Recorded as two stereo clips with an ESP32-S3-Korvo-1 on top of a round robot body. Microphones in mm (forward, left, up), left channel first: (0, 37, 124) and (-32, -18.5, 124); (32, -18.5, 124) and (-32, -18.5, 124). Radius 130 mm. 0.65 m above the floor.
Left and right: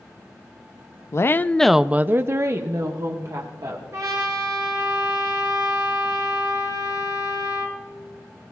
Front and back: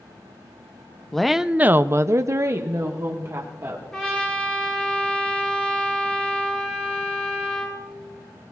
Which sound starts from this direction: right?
A trumpet, at 3.9 s.